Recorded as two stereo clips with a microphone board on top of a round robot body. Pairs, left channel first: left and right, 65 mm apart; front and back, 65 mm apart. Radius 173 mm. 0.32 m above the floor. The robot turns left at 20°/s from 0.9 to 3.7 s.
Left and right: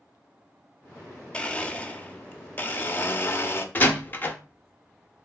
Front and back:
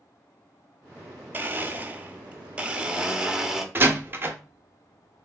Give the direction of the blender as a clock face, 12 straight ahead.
7 o'clock.